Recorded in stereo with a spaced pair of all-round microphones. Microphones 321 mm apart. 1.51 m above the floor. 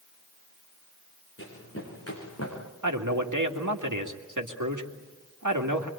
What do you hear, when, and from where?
1.4 s running footsteps: 45° left (ahead or behind), 7.5 m; by 2.6 s 55° left (ahead or behind), 6.5 m
2.8 s a man speaking: 80° right, 2 m